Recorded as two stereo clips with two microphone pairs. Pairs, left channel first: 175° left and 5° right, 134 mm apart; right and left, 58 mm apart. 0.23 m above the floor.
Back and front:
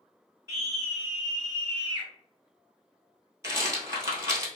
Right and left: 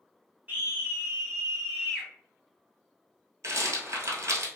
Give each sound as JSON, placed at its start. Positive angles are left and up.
{"t": 0.5, "sound": "a scream", "azimuth_deg": 50, "distance_m": 1.8}
{"t": 3.4, "sound": "a rattle", "azimuth_deg": 60, "distance_m": 1.1}